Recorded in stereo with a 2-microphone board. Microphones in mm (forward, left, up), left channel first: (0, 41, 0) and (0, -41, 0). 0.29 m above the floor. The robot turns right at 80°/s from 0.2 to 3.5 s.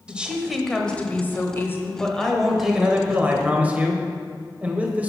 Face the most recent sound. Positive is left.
turn(degrees=-20)  # may be behind; listen again after turning